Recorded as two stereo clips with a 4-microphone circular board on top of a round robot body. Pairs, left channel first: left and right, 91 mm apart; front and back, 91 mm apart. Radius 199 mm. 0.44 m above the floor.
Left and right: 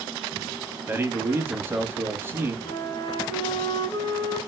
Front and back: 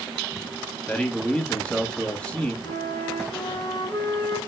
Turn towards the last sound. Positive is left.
turn(degrees=50)